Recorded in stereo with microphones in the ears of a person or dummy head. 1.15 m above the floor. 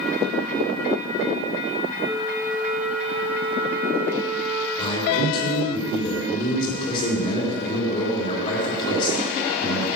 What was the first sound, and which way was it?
A flute, 10° right (ahead or behind).